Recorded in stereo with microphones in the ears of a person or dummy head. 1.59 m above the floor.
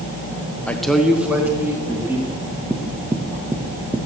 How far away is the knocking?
About 1.2 m.